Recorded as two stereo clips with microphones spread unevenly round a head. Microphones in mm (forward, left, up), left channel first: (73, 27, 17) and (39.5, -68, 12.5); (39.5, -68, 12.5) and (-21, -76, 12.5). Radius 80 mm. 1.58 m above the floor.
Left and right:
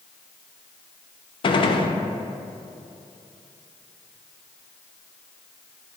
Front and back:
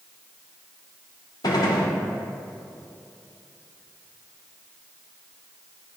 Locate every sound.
1.4 s a gunshot: 40° left, 0.7 m